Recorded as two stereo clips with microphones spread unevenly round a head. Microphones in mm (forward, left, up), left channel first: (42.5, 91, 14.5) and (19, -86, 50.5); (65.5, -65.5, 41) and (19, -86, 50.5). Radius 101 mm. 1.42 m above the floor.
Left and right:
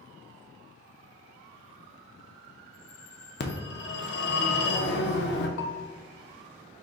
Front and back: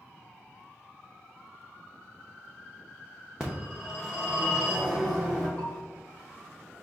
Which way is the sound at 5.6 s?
95° left.